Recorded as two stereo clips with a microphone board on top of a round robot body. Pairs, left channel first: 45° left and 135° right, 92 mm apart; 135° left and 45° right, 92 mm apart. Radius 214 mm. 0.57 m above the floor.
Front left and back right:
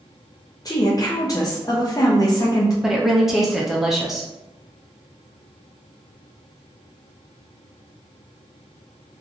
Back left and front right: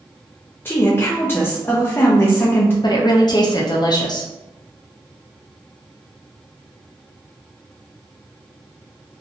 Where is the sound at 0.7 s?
75° left, 0.8 m.